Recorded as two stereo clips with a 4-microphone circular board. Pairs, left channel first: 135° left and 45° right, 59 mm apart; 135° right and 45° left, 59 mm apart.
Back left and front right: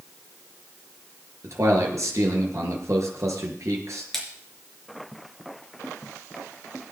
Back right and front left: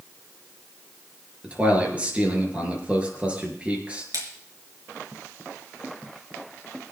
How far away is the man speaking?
About 5 m.